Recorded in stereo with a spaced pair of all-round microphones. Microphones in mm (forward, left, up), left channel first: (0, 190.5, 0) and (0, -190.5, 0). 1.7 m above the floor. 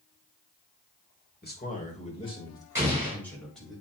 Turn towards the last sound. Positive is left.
turn(degrees=-10)  # may be behind; listen again after turning